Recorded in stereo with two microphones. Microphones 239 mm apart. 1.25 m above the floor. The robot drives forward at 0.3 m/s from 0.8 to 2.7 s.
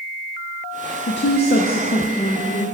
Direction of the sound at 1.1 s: 55° left (ahead or behind).